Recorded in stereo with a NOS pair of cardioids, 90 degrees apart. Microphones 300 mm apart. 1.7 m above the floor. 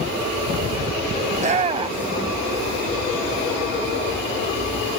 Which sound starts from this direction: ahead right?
A shout, at 1.3 s.